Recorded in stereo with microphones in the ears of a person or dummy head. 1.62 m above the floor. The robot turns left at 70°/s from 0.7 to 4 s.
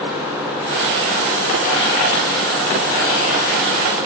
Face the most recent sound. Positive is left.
No sound to turn to.